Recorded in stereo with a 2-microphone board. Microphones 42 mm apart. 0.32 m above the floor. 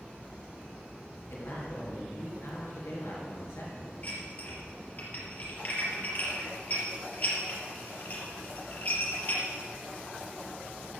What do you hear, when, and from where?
1.3 s a man speaking: 75° left (ahead or behind), 5.5 m
4.0 s dishes clattering: 40° left (ahead or behind), 4.5 m